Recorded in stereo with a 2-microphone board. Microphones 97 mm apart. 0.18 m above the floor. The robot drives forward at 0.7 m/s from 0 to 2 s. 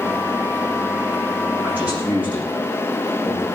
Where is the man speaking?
15° right (ahead or behind), 8.5 m.